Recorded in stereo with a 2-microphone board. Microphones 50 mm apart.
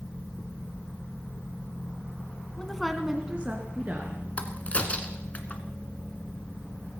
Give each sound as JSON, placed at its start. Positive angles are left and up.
{"t": 2.6, "sound": "a woman speaking", "side_deg": 15, "distance_m": 1.5}
{"t": 4.4, "sound": "a crack", "side_deg": 30, "distance_m": 1.5}